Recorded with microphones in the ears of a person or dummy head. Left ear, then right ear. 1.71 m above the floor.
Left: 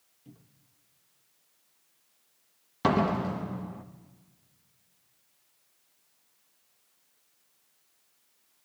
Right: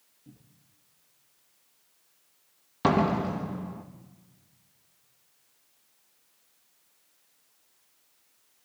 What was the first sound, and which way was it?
A cupboard door, 70° left (ahead or behind).